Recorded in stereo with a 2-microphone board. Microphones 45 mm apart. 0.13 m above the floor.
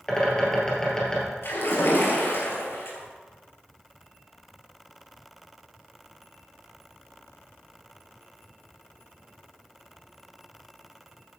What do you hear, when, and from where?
0.1 s a bird: 15° left (ahead or behind), 3.5 m
1.4 s a splash: 60° left (ahead or behind), 3.5 m